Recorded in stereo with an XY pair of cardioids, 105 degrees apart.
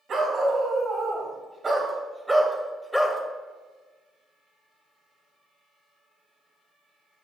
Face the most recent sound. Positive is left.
turn(degrees=15)